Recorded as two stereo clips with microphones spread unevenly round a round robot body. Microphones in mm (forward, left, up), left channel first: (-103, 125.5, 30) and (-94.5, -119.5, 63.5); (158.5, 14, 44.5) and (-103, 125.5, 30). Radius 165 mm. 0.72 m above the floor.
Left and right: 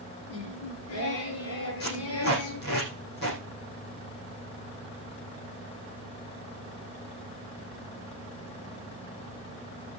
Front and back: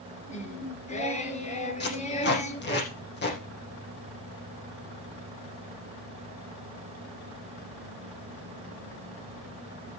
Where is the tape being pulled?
30° left, 6.5 m.